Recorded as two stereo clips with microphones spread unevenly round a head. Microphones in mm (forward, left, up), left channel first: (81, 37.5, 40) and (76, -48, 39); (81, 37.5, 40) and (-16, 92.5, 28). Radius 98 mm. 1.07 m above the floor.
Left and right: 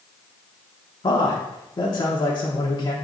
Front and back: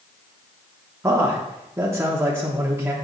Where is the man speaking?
95° left, 1.1 m.